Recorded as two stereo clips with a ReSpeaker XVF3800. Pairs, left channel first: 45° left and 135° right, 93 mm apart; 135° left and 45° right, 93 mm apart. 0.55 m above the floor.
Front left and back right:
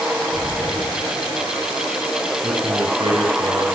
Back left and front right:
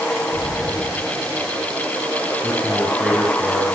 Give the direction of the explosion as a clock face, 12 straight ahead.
12 o'clock.